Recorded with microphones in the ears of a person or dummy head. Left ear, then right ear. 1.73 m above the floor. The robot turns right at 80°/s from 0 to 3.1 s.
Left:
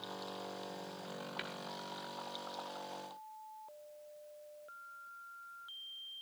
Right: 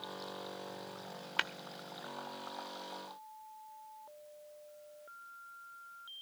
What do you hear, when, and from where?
1.4 s tapping: 45° right (ahead or behind), 0.9 m; by 1.5 s 55° right (ahead or behind), 0.9 m